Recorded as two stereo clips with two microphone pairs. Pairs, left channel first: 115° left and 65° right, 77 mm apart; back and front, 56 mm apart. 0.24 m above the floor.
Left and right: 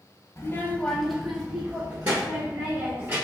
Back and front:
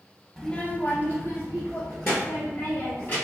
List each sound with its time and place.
0.4 s a child speaking: 100° left, 0.6 m; by 3.1 s 130° right, 2.5 m